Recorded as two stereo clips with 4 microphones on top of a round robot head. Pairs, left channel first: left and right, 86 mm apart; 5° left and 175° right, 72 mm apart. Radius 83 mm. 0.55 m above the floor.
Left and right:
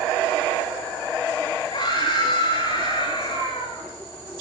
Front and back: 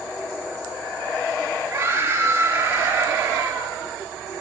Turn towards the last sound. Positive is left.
turn(degrees=120)